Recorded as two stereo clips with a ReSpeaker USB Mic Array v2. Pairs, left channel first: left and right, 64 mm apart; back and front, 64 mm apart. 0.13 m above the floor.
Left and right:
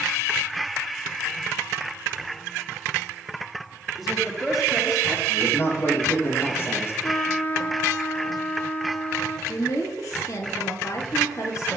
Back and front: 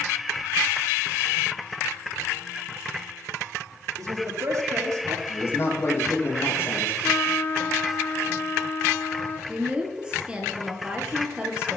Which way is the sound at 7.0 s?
135° left.